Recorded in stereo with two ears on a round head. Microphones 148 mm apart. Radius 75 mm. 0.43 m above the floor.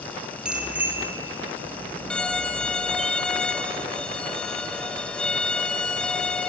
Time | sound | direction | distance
0.5 | a bicycle bell | 5° right (ahead or behind) | 5 m
2.1 | a violin | 5° left (ahead or behind) | 1.9 m